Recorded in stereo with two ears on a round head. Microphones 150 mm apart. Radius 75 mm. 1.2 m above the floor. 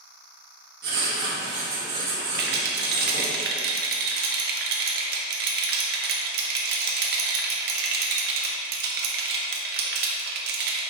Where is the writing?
55° right (ahead or behind), 2.0 m.